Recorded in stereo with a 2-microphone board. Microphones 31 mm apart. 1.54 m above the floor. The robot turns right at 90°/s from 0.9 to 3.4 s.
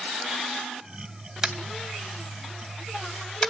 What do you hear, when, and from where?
1.4 s tapping: 10° right (ahead or behind), 2.5 m; by 3.5 s 10° left (ahead or behind), 2.5 m